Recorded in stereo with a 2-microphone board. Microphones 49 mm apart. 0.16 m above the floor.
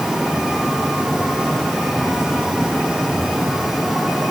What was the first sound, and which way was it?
Only background noise.